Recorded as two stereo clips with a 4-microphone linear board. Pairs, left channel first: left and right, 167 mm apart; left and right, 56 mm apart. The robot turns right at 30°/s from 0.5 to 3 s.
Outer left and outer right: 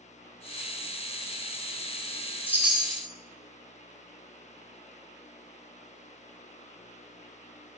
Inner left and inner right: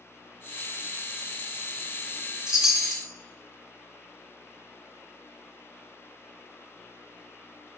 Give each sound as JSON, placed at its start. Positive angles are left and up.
{"t": 2.5, "sound": "a chime", "side_deg": -10, "distance_m": 0.6}